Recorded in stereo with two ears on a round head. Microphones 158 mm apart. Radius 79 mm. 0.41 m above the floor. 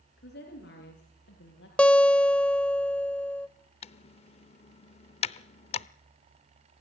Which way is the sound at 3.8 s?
35° left (ahead or behind).